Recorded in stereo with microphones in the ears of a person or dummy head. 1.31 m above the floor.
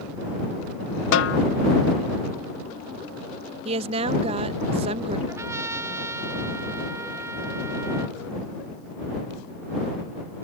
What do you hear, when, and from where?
1.1 s a snare drum: 85° left
3.6 s a woman speaking: 35° right (ahead or behind)
5.3 s a trumpet: 15° right (ahead or behind)